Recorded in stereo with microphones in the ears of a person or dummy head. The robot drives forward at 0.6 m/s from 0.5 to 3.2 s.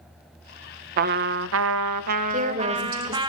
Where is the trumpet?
50° right (ahead or behind), 0.6 m; by 3.3 s 25° right (ahead or behind), 1.1 m.